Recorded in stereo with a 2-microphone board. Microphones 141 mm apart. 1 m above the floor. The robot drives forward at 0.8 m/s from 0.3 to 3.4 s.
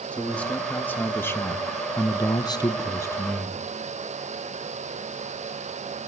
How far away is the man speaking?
About 1.7 m.